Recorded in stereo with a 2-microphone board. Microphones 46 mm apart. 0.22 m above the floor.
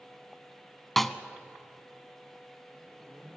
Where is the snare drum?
5° left (ahead or behind), 0.9 m.